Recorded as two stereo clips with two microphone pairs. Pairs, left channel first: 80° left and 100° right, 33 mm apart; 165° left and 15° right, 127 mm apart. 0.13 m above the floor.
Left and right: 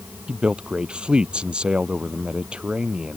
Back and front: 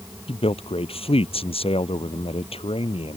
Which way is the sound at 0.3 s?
155° right.